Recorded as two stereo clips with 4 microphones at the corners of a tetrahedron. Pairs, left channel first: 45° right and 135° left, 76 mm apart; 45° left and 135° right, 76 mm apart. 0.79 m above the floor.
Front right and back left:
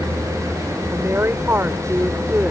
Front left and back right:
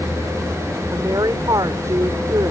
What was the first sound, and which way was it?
A woman speaking, 170° right.